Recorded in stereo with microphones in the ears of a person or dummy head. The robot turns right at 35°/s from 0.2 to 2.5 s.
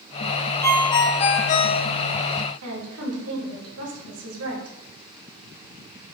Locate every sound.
0.6 s a ringtone: 20° left, 0.9 m; by 1.8 s 65° left, 0.9 m
2.6 s a woman speaking: 80° right, 2.5 m